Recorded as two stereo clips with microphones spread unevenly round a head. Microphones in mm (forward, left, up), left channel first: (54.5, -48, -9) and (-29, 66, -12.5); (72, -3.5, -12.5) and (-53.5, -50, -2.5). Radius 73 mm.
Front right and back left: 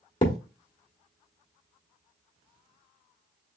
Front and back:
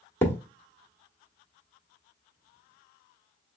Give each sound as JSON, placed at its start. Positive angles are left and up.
{"t": 0.2, "sound": "a thud", "azimuth_deg": -45, "distance_m": 1.1}